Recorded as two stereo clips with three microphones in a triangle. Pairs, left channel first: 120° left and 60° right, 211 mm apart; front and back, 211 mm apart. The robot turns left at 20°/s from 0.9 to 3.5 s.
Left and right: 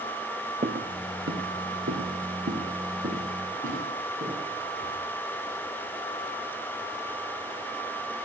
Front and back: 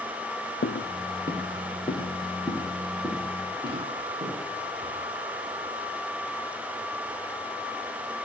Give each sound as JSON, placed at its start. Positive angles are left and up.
{"t": 0.6, "sound": "footsteps", "azimuth_deg": -10, "distance_m": 0.8}